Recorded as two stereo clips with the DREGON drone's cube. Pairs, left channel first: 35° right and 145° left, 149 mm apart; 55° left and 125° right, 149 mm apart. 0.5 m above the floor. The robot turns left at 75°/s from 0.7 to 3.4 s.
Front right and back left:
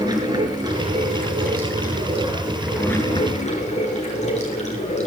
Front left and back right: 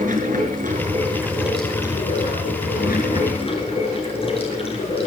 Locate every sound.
0.0 s running water: 150° right, 5 m; by 5.1 s 5° left, 5 m